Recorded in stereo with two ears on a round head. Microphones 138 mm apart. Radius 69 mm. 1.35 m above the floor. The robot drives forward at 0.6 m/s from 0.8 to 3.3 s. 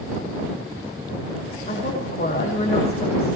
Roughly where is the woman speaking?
Left.